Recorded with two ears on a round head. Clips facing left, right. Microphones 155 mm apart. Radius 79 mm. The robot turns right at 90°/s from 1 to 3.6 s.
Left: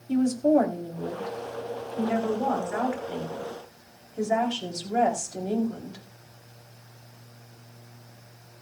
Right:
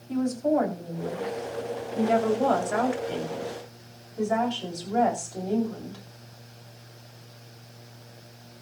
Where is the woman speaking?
145° left, 3.5 m; by 6.0 s 15° left, 3.5 m.